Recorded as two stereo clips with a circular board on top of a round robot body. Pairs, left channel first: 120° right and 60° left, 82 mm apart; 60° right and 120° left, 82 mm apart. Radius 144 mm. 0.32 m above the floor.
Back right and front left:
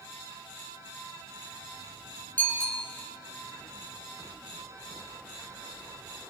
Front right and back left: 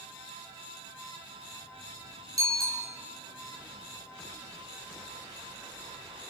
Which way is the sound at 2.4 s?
170° left.